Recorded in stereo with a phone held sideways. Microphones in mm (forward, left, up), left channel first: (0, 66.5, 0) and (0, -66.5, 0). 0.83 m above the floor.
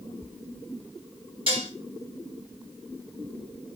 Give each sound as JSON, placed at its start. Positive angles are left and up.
{"t": 1.5, "sound": "dishes clattering", "side_deg": -45, "distance_m": 3.0}